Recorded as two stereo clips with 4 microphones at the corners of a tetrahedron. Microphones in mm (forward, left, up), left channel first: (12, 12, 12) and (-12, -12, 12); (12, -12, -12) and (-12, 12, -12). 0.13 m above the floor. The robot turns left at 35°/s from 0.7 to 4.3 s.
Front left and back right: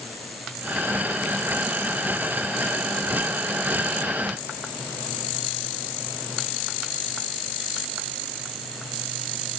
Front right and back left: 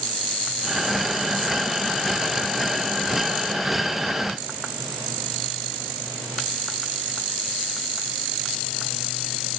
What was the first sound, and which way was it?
Only background noise.